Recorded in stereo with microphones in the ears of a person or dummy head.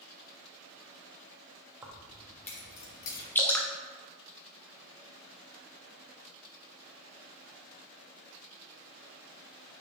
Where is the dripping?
10° left (ahead or behind), 0.7 m.